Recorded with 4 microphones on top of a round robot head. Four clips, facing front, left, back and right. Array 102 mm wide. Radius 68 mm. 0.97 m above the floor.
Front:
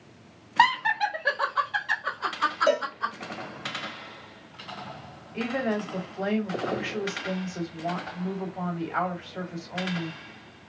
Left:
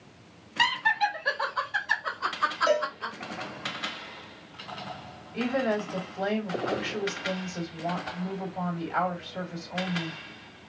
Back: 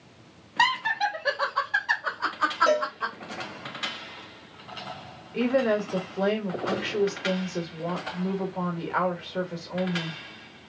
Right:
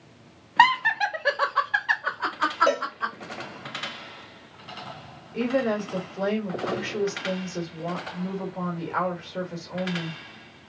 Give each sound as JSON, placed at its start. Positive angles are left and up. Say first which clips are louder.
{"t": 0.6, "sound": "laughter", "louder": "right 6 dB, front 2 dB", "azimuth_deg": -70, "distance_m": 1.1}
{"t": 2.7, "sound": "a cowbell", "louder": "even, front 2 dB", "azimuth_deg": -115, "distance_m": 2.5}
{"t": 5.3, "sound": "a woman speaking", "louder": "right 3 dB, back 5 dB", "azimuth_deg": -150, "distance_m": 1.9}